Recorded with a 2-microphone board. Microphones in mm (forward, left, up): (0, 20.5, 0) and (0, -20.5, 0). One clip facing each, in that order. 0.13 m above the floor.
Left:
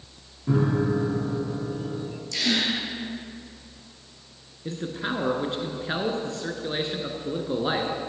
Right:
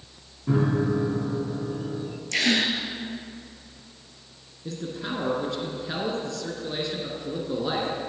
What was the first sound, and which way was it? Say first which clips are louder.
A piano: even; 5° right (ahead or behind).